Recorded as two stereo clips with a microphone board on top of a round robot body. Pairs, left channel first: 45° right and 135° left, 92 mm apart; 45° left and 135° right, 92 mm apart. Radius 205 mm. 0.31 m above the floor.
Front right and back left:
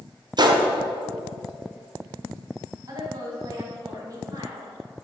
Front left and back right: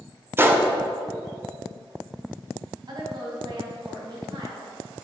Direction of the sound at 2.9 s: 175° right.